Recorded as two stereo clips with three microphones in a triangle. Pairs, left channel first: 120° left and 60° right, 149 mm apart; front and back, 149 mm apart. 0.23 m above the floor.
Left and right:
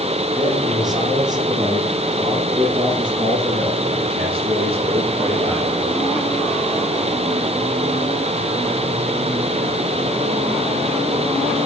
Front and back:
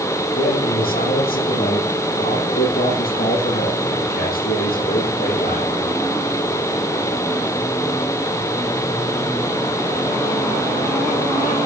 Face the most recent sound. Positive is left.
turn(degrees=-10)